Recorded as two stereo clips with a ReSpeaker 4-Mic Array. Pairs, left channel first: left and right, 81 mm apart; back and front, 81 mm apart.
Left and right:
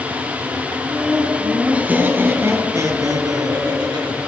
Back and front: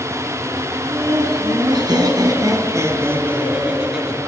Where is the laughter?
Straight ahead, 4 m; by 4.2 s 85° right, 3 m.